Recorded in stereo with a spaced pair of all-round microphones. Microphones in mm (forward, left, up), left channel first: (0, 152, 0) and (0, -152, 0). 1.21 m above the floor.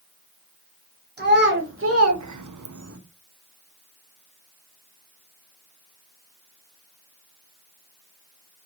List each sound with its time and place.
1.2 s a child speaking: 30° right (ahead or behind), 1.4 m; by 3.0 s 45° right (ahead or behind), 0.6 m